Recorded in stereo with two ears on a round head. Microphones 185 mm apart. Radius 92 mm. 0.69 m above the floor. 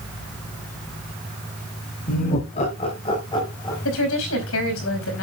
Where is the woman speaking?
75° left (ahead or behind), 5 m.